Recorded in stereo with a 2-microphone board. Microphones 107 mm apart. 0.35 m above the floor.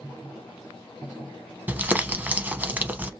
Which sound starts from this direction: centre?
Crumpling, at 1.7 s.